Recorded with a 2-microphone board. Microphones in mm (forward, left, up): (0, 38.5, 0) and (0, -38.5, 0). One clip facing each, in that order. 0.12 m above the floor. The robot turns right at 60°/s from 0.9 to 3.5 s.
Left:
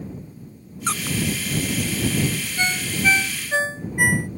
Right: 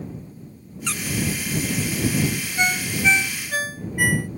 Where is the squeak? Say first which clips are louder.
Left 3 dB; 35° left (ahead or behind); by 1.2 s 50° left (ahead or behind).